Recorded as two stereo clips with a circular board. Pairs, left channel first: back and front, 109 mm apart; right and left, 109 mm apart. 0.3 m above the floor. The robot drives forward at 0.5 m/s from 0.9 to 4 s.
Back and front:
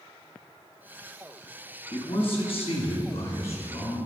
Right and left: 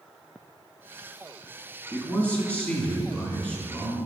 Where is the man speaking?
165° right, 1.9 m; by 4.0 s 170° right, 3 m.